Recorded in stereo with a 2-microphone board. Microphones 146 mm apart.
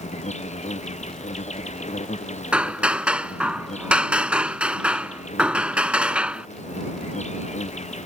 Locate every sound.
0.0 s an insect: 50° left (ahead or behind)
2.5 s hammering: 5° right (ahead or behind)